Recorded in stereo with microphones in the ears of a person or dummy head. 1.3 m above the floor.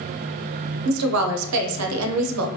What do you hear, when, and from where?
0.8 s a woman speaking: 85° right, 0.6 m